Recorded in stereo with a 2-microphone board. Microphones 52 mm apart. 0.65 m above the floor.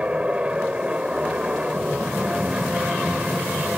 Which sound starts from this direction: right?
An aircraft, at 0.0 s.